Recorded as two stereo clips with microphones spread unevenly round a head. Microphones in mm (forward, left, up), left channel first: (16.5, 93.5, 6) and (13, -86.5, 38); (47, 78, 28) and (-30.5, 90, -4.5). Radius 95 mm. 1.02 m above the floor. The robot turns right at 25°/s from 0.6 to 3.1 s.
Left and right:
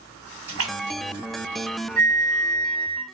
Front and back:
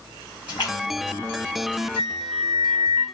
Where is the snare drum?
No snare drum in this recording.